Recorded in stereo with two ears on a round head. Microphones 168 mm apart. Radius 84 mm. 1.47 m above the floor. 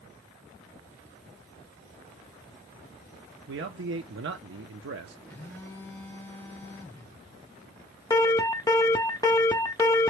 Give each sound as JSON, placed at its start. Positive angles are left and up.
{"t": 3.5, "sound": "a man speaking", "side_deg": -65, "distance_m": 0.6}
{"t": 5.3, "sound": "a phone buzzing", "side_deg": 10, "distance_m": 1.1}
{"t": 8.1, "sound": "an alarm", "side_deg": 20, "distance_m": 0.5}